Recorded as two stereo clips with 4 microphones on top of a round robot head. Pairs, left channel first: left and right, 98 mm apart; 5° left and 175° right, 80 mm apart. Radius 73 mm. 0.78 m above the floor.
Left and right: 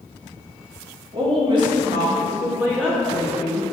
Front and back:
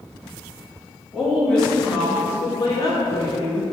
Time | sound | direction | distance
1.1 | a woman speaking | 90° right | 1.4 m